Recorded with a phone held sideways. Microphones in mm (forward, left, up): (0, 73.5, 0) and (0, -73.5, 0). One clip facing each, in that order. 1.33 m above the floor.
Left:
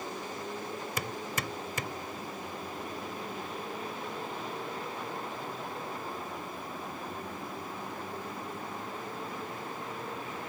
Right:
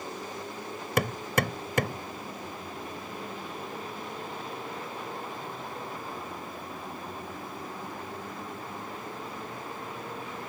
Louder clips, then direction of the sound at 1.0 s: Right 12 dB; 70° right (ahead or behind).